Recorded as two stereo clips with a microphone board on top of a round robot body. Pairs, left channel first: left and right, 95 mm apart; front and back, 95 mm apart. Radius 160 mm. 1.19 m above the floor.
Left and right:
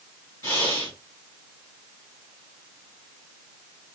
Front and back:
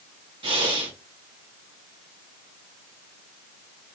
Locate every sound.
0.4 s breathing: 155° left, 1.7 m